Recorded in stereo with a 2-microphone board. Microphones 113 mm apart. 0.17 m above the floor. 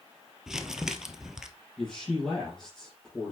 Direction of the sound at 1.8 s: 5° left (ahead or behind).